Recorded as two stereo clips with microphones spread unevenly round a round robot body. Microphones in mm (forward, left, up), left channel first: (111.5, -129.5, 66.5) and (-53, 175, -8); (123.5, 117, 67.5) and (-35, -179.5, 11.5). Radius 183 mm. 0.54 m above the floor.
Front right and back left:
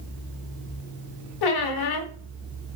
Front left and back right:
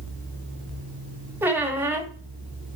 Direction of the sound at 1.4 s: 35° right.